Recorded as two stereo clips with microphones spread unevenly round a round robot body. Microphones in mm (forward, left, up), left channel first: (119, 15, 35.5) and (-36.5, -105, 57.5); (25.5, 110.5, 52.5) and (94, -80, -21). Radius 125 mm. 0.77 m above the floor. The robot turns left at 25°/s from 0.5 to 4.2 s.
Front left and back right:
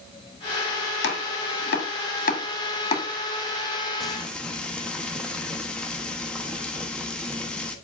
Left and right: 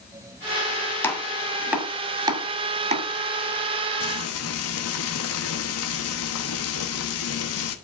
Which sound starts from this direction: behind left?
Frying, at 4.0 s.